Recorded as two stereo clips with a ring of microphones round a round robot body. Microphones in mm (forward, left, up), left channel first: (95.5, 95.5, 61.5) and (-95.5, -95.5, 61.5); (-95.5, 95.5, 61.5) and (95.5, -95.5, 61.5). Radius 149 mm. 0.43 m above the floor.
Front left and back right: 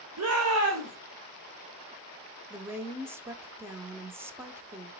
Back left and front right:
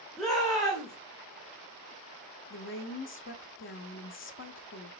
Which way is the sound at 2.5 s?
145° left.